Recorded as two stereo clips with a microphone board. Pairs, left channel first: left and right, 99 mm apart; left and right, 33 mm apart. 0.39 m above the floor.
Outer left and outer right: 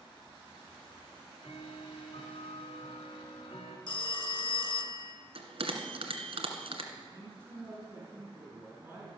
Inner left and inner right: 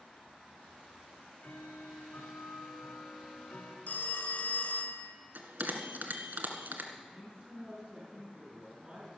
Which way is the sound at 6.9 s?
25° right (ahead or behind).